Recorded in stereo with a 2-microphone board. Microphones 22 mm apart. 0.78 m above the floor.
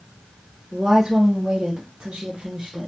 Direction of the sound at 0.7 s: 25° right (ahead or behind).